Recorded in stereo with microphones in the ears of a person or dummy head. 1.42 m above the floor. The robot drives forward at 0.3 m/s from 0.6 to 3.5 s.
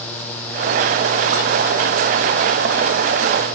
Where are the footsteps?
No footsteps in this recording.